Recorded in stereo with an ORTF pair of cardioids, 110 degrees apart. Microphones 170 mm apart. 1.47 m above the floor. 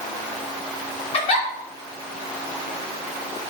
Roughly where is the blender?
I don't hear a blender.